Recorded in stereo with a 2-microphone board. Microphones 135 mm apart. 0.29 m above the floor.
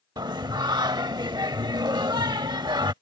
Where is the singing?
30° right (ahead or behind).